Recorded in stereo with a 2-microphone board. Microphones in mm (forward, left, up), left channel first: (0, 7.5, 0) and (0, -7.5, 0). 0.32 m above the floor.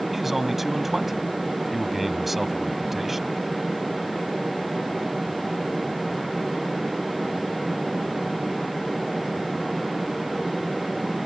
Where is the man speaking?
10° right (ahead or behind).